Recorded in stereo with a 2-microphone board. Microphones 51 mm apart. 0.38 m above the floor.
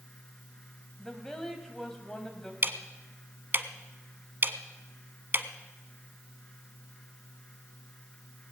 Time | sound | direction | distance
1.0 | a woman speaking | 10° left (ahead or behind) | 2 m
2.6 | ticking | 45° right (ahead or behind) | 0.8 m